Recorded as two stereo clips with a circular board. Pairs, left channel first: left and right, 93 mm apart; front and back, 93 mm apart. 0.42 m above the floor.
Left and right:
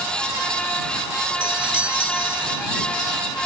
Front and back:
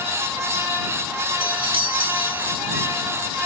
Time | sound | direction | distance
1.4 | a doorbell | 165° right | ?